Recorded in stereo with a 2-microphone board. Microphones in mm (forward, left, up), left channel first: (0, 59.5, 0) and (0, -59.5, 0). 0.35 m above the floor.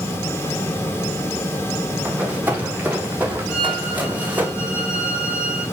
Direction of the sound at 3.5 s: 10° right (ahead or behind).